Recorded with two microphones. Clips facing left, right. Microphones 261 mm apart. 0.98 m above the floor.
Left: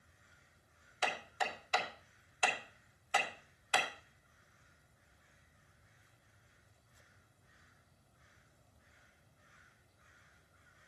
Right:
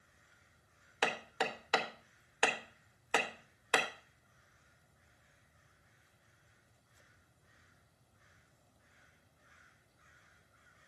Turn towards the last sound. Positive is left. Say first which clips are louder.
# right 4 dB
turn(degrees=-75)  # may be behind; listen again after turning